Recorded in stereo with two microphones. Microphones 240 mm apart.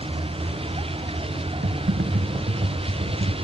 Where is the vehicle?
25° right (ahead or behind).